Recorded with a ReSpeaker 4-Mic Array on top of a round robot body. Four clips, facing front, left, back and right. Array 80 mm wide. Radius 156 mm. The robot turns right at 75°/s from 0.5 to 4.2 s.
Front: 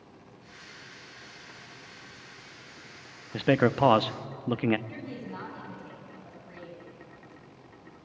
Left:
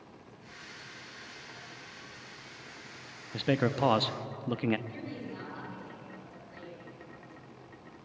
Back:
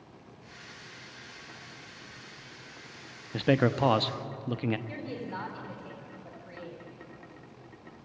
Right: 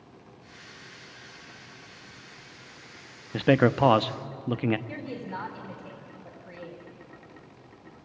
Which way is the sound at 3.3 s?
80° right.